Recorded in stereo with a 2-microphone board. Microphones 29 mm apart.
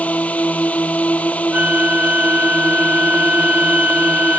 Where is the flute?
60° right (ahead or behind).